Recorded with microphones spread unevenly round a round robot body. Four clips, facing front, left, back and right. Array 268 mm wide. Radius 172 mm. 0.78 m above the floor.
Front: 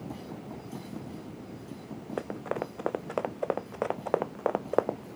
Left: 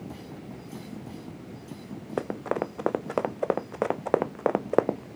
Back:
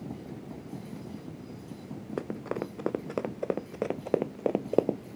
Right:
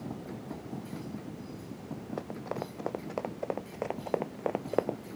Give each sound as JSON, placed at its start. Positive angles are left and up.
{"t": 2.2, "sound": "running footsteps", "azimuth_deg": 135}